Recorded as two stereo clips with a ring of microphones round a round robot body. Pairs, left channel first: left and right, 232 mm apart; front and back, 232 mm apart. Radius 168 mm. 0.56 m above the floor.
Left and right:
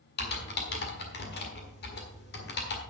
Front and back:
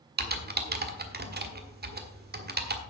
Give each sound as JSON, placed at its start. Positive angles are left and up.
{"t": 0.2, "sound": "typing on a keyboard", "azimuth_deg": 135, "distance_m": 1.5}